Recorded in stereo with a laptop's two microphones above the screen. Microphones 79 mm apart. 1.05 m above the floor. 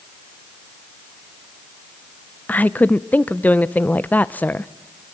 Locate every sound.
2.5 s a woman speaking: 20° left (ahead or behind), 0.7 m